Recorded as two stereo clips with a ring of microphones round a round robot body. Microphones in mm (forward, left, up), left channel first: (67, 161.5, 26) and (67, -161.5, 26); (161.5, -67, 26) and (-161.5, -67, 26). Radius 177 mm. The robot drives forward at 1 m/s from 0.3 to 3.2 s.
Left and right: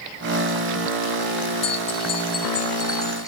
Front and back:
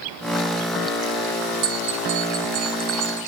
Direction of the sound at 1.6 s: 155° left.